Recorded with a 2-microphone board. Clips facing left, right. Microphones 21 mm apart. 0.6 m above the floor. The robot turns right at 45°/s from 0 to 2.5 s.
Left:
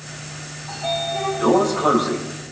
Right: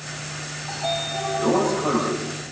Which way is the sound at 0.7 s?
5° right.